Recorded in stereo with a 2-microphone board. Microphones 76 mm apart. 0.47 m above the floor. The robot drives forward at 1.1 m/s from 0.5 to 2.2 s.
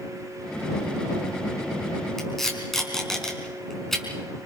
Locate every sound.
2.2 s tape being pulled: 5° left (ahead or behind), 4.5 m